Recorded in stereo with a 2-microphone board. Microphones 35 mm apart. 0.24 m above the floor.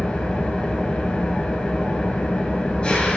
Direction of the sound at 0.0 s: 25° left (ahead or behind).